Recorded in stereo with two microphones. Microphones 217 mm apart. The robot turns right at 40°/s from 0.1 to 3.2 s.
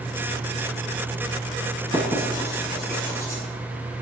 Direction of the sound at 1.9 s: 35° right (ahead or behind).